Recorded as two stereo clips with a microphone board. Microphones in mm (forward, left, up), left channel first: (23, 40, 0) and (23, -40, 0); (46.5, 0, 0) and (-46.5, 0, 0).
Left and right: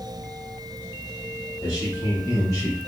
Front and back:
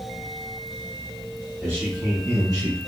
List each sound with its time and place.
1.6 s a man speaking: 110° left, 1.7 m; by 2.8 s 150° left, 0.7 m